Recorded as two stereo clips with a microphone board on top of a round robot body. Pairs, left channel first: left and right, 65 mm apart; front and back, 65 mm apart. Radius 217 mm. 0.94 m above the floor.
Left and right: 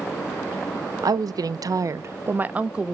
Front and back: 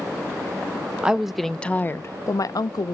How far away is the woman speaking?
About 0.9 m.